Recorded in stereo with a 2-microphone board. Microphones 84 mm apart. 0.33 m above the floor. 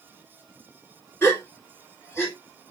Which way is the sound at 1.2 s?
30° left (ahead or behind).